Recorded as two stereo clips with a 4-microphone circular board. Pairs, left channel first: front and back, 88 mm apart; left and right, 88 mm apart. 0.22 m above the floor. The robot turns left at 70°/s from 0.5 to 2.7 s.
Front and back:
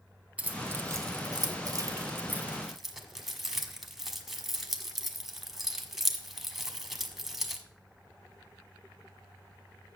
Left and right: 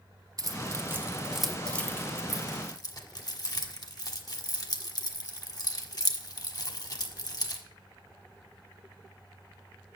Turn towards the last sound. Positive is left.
turn(degrees=95)